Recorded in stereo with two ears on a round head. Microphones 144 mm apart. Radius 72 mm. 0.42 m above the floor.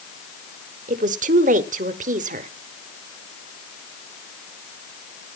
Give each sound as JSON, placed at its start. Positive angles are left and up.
{"t": 0.9, "sound": "a woman speaking", "side_deg": -50, "distance_m": 1.2}